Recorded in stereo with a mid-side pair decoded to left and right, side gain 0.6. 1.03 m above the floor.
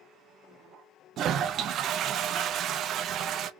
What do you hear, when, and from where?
1.2 s a toilet flushing: 55° right, 0.6 m